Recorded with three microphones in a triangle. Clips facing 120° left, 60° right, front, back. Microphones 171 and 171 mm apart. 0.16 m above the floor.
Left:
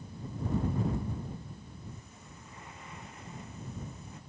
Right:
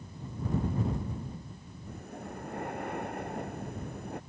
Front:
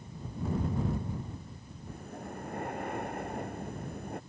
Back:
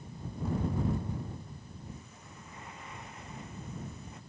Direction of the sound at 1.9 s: 30° right.